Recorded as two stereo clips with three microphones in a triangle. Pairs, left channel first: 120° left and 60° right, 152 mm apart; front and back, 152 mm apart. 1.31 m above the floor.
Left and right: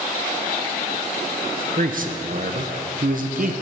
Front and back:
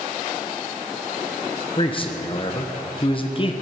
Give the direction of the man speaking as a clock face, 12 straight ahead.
2 o'clock.